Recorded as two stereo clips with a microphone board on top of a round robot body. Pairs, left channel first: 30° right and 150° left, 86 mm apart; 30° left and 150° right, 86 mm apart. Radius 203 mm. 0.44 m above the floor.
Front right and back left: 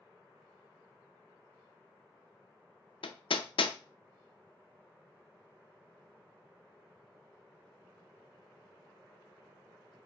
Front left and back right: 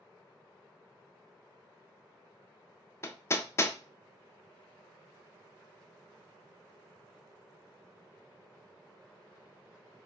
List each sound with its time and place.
3.0 s hammering: 30° right, 0.5 m